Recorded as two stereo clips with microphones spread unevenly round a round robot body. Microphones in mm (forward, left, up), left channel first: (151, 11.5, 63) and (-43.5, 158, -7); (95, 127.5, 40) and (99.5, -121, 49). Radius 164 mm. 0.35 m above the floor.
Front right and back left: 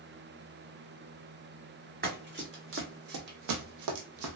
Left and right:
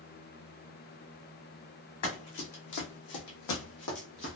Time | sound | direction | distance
2.0 | running footsteps | 85° left | 1.3 m